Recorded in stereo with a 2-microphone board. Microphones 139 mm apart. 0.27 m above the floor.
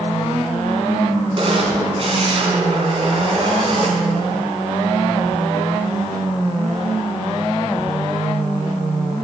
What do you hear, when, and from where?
1.4 s a camera shutter: 45° right (ahead or behind), 2.5 m